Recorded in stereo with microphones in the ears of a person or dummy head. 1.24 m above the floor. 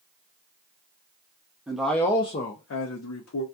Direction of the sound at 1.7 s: 10° right (ahead or behind).